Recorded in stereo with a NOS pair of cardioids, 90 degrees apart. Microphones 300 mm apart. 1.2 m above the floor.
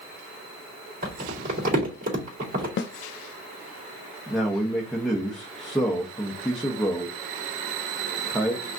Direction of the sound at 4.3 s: Straight ahead.